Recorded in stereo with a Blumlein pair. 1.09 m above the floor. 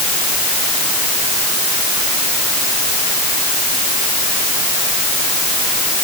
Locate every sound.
Only background noise.